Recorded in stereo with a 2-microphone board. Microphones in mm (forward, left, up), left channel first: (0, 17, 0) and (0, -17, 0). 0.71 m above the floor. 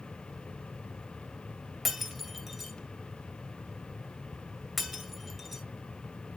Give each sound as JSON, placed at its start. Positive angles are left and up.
{"t": 1.9, "sound": "breaking glass", "side_deg": 0, "distance_m": 2.0}